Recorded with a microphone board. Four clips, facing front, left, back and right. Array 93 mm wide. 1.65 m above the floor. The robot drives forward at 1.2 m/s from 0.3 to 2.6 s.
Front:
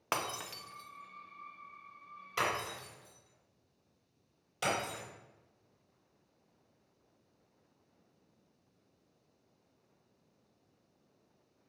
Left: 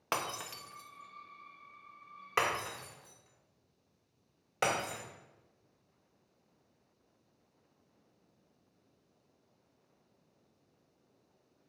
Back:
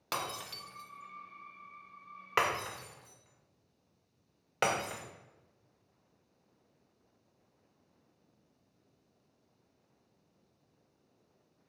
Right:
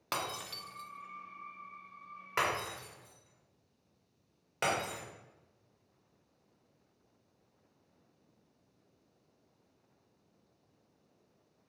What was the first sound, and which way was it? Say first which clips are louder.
Breaking glass: left 1 dB, front 1 dB; 30° left.